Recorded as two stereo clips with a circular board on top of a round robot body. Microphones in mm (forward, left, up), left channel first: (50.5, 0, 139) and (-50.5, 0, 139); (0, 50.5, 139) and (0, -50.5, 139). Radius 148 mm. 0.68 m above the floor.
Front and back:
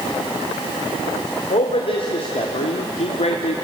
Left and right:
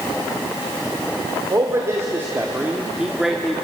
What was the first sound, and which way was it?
A man speaking, 30° right.